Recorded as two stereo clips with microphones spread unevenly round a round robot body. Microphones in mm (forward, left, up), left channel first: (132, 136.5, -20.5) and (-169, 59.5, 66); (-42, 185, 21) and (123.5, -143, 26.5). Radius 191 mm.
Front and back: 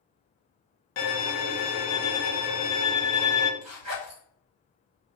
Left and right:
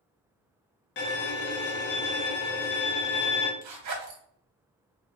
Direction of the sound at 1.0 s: 55° left.